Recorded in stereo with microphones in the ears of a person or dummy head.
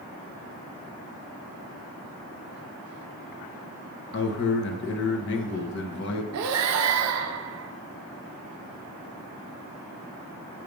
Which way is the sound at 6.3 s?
75° right (ahead or behind).